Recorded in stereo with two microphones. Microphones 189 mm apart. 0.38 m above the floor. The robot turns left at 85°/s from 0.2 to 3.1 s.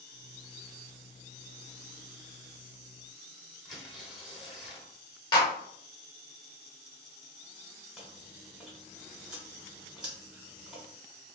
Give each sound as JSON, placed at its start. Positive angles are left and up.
{"t": 3.6, "sound": "tearing paper", "side_deg": 0, "distance_m": 1.1}
{"t": 5.3, "sound": "a clap", "side_deg": 25, "distance_m": 1.0}
{"t": 8.0, "sound": "chewing", "side_deg": -5, "distance_m": 1.3}